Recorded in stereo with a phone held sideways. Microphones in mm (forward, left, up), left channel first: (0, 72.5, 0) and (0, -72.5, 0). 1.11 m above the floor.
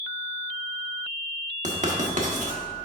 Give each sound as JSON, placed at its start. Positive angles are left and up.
{"t": 1.6, "sound": "writing", "side_deg": -55, "distance_m": 1.0}